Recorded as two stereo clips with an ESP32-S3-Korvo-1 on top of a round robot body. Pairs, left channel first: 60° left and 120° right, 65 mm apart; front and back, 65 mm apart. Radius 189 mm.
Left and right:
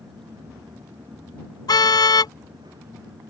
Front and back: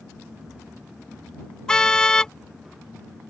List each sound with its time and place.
1.7 s a car horn: 80° left